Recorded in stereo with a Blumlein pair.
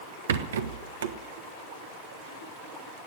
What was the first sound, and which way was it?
A rattle, 65° right.